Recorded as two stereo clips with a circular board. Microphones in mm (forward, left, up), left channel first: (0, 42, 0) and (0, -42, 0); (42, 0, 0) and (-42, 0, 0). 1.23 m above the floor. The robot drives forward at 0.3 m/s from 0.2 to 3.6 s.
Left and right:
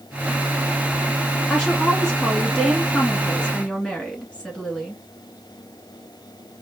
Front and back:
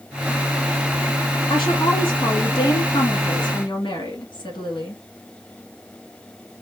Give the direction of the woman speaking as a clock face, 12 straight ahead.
12 o'clock.